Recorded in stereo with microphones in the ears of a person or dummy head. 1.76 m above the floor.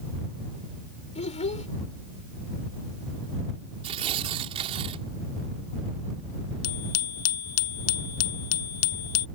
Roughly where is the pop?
I don't hear a pop.